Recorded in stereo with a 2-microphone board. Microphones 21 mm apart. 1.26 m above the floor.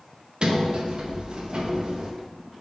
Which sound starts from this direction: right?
A sliding door, at 0.4 s.